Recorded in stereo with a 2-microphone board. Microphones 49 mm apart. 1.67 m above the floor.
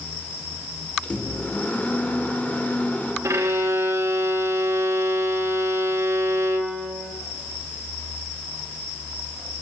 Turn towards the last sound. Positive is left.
turn(degrees=-80)